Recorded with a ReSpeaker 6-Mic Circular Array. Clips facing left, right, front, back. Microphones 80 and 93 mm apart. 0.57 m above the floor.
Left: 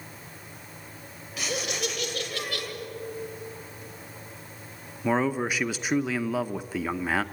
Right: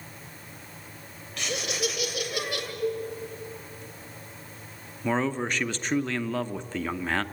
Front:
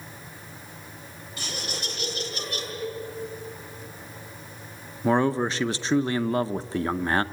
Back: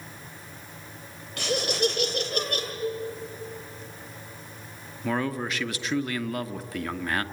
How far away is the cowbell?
About 2.5 m.